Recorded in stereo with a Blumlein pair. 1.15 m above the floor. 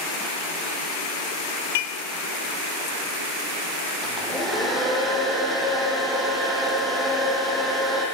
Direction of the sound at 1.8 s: 55° left.